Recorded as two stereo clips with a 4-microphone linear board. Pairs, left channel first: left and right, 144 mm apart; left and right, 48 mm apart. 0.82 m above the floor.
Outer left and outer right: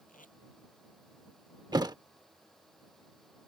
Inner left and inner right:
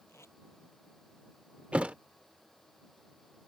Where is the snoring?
I don't hear snoring.